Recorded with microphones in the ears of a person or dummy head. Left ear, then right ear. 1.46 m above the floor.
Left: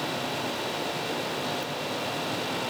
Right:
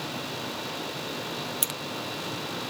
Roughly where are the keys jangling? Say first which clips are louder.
Right 1 dB; right.